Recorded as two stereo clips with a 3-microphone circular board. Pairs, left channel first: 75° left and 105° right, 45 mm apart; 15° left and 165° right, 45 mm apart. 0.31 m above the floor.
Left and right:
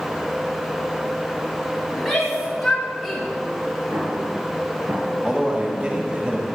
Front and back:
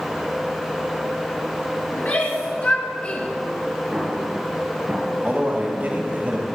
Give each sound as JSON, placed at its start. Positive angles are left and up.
{"t": 1.9, "sound": "a shout", "azimuth_deg": -15, "distance_m": 2.5}
{"t": 3.9, "sound": "an explosion", "azimuth_deg": -95, "distance_m": 3.5}
{"t": 5.2, "sound": "a man speaking", "azimuth_deg": -150, "distance_m": 1.7}